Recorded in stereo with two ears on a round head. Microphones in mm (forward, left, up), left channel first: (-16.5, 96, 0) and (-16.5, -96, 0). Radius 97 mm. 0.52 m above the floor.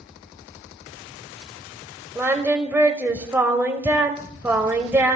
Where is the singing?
10° right (ahead or behind), 1.1 m.